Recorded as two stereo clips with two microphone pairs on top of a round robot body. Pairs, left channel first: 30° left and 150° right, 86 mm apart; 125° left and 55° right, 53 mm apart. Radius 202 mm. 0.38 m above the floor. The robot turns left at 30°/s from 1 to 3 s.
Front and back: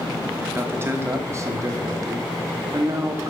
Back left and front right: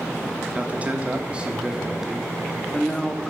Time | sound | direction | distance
0.6 | a man speaking | 105° right | 1.4 m